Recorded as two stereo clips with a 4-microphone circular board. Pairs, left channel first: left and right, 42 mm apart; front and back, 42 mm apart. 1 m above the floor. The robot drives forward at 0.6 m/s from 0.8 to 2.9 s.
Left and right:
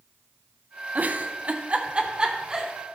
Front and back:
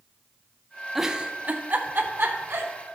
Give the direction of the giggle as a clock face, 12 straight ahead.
3 o'clock.